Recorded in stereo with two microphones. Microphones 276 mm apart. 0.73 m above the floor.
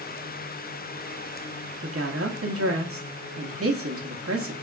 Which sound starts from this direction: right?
A woman speaking, at 1.8 s.